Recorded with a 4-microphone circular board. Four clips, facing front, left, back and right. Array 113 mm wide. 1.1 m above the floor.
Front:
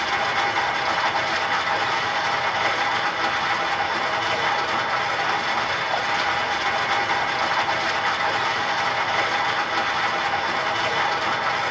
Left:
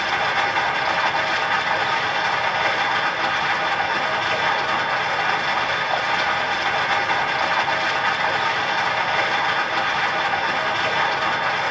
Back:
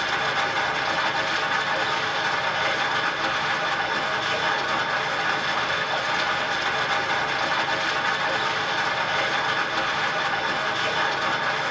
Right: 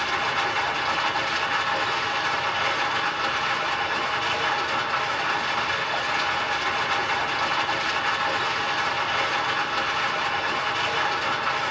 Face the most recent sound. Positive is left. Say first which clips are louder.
# left 4 dB, front 2 dB
turn(degrees=70)